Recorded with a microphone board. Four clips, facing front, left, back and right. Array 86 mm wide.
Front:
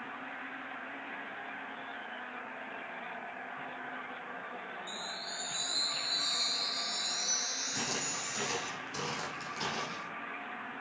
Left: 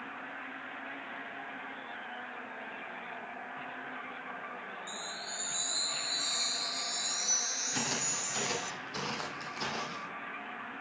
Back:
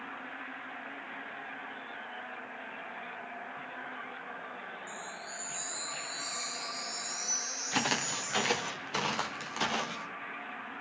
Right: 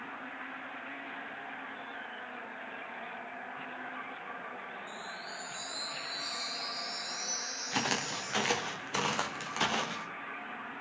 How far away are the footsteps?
About 3.5 m.